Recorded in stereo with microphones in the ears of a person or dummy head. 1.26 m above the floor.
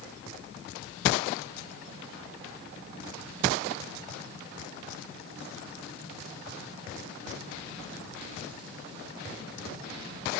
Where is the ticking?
No ticking in this recording.